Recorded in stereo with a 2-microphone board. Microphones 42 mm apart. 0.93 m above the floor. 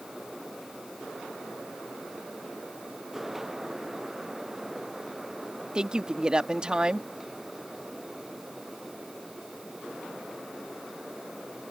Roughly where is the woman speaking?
Right.